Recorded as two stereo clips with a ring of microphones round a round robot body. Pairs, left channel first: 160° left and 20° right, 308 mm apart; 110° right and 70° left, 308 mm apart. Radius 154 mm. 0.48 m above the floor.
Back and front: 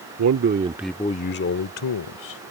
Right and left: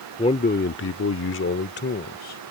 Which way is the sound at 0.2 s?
45° right.